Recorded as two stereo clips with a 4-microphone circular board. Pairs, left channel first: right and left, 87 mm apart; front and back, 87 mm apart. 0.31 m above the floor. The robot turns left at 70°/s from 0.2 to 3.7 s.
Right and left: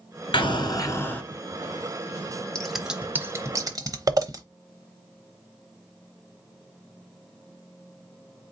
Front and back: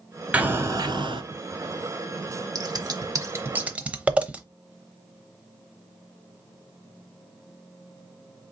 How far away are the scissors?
About 0.8 m.